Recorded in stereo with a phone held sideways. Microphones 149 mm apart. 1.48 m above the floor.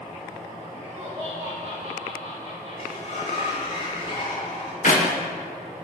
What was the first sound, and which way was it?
Laughter, 40° right (ahead or behind).